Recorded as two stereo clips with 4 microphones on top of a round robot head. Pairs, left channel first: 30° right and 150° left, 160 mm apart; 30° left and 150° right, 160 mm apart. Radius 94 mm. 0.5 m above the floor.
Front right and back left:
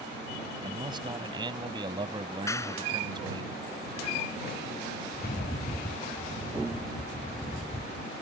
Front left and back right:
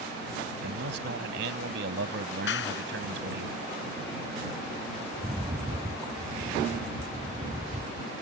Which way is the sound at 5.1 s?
80° right.